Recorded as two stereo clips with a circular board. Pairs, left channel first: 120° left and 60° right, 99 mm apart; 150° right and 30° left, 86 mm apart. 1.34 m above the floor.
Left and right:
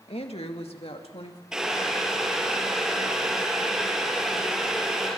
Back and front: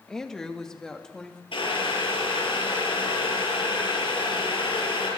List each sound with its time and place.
0.1 s a woman speaking: 125° left, 1.9 m; by 1.4 s 130° left, 3 m
1.5 s boiling: 145° right, 7.5 m